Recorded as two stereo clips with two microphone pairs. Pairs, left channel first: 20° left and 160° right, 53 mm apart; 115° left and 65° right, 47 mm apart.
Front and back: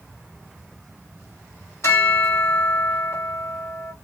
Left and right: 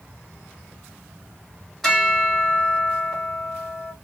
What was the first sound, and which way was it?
A bell, 30° left.